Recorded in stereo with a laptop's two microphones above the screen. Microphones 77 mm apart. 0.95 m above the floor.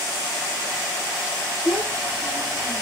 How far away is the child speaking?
About 1.8 m.